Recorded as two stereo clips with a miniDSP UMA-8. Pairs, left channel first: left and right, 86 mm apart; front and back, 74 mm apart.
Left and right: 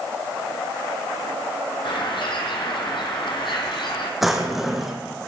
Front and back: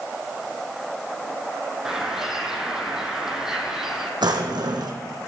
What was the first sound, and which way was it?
A bird, 100° left.